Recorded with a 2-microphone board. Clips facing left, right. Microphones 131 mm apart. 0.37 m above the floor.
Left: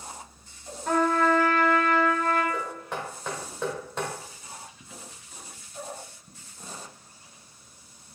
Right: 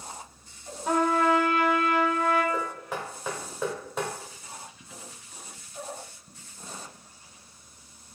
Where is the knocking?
5° right (ahead or behind), 1.0 m.